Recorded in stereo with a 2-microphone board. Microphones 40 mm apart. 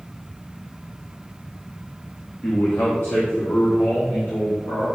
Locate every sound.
2.4 s a man speaking: 45° left (ahead or behind), 1.3 m; by 4.9 s 80° left, 3 m